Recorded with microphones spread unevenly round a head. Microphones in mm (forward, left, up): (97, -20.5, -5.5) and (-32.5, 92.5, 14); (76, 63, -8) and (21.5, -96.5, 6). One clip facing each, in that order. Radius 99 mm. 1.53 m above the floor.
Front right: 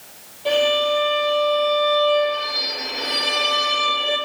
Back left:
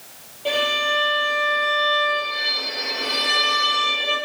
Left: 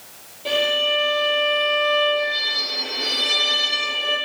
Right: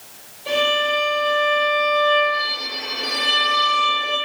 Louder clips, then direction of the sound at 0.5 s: Front right 6 dB, right 1 dB; 60° left.